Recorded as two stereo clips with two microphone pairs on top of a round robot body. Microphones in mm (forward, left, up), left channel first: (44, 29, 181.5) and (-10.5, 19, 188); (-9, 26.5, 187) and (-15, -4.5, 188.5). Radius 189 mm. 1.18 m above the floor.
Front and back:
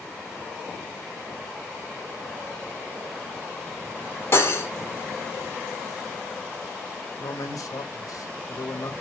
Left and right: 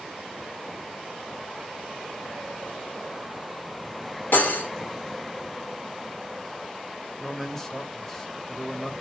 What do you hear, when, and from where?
4.3 s cutlery clinking: 60° left, 1.0 m
7.2 s a man speaking: straight ahead, 1.2 m